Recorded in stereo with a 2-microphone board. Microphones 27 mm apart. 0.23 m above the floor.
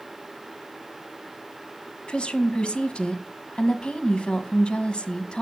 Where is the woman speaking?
45° left (ahead or behind), 1.4 m.